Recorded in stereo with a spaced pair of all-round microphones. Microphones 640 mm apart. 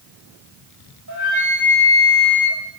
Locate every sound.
1.1 s a flute: 25° right (ahead or behind), 4.5 m